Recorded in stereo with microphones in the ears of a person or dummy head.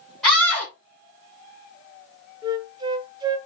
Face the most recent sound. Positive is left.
turn(degrees=-25)  # may be behind; listen again after turning